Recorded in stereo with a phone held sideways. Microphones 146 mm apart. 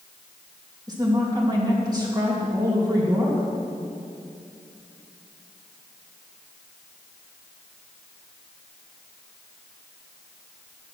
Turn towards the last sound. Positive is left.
turn(degrees=-25)  # may be behind; listen again after turning